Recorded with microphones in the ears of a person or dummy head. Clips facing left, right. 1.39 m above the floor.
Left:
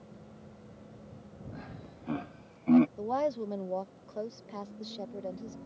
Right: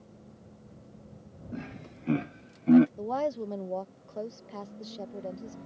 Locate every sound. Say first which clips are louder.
1.5 s laughter: right 9 dB; 30° right (ahead or behind); by 2.9 s 5° right (ahead or behind)
3.0 s a woman speaking: even; 10° right (ahead or behind)